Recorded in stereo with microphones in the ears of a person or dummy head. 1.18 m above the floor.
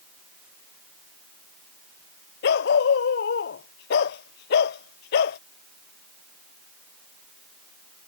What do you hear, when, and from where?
2.4 s a dog barking: 65° left (ahead or behind)